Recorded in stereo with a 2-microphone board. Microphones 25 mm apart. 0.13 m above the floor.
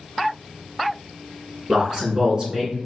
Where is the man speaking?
30° right (ahead or behind), 1.2 m.